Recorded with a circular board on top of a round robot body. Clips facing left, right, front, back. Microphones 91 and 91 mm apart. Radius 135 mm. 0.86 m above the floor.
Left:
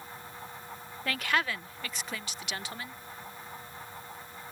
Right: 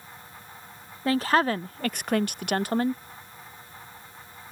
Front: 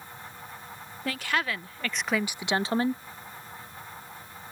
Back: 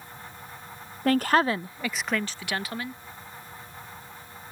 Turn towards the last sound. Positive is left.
turn(degrees=-50)